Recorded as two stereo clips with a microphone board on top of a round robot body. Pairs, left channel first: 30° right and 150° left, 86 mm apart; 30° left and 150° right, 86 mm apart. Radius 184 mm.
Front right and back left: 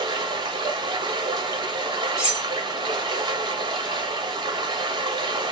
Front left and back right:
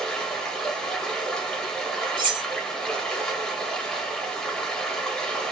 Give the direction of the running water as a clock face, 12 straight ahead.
8 o'clock.